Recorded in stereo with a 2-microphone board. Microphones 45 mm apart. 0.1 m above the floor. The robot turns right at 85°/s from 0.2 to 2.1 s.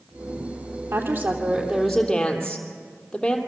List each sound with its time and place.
0.9 s a woman speaking: 85° right, 3 m; by 3.4 s 15° left, 3 m